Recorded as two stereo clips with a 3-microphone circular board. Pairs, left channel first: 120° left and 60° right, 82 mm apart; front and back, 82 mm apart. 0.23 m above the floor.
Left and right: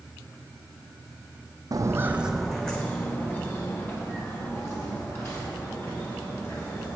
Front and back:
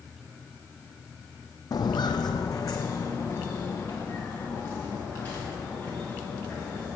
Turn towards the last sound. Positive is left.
turn(degrees=65)